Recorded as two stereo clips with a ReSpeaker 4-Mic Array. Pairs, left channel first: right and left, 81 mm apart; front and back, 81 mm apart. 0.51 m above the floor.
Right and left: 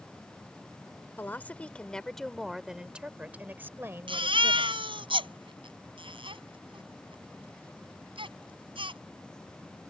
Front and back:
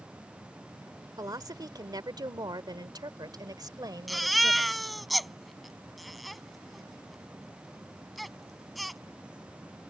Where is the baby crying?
90° left.